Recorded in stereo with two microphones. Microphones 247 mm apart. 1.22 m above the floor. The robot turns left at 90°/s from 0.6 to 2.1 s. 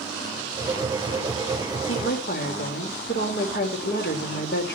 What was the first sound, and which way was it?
A woman speaking, 70° left (ahead or behind).